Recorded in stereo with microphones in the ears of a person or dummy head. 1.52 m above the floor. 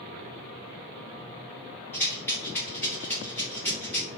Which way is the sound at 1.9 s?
15° left (ahead or behind).